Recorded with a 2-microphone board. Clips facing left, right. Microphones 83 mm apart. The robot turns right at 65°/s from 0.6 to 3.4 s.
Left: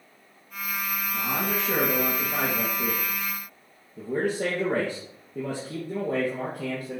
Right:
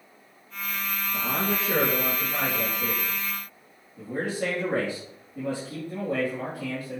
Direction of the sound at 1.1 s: 45° right.